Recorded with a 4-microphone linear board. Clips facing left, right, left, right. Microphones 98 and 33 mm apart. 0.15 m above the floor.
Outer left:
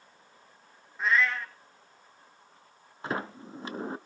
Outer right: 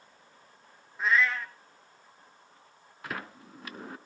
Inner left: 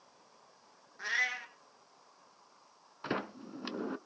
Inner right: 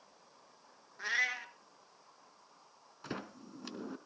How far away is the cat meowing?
About 1.2 m.